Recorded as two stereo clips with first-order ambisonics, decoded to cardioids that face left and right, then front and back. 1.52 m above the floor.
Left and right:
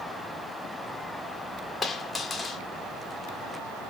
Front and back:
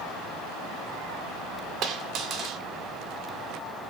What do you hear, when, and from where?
1.8 s a dropped coin: 160° left, 1.4 m